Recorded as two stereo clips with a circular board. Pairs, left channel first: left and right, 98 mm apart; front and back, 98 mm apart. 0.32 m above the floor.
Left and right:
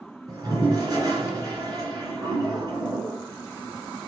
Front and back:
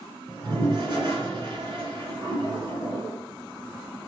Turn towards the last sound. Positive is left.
turn(degrees=-140)